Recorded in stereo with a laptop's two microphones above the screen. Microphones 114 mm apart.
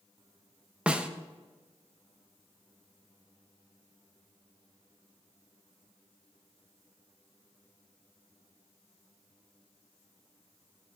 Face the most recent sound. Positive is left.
turn(degrees=-10)  # may be behind; listen again after turning